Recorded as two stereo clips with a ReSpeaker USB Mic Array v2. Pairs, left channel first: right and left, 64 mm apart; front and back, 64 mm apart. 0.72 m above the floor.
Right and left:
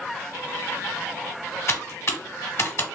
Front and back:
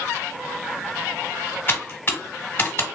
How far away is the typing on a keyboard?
About 1.0 m.